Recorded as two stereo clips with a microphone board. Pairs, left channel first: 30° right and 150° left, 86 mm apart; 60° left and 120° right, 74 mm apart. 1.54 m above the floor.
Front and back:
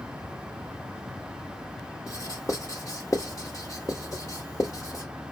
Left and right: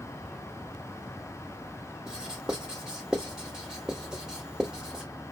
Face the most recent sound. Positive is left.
turn(degrees=-50)